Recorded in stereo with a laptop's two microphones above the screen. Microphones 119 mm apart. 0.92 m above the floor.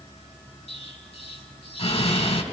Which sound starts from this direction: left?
An explosion, at 0.7 s.